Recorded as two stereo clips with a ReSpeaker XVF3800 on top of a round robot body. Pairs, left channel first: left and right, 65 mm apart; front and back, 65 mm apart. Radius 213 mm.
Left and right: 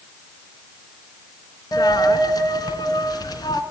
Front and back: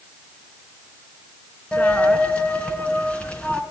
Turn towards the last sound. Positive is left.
turn(degrees=75)